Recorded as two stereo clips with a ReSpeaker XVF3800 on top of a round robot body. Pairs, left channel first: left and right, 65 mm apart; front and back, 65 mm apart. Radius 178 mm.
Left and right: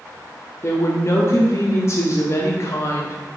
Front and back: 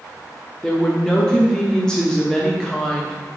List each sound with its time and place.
0.6 s a woman speaking: 75° left, 1.6 m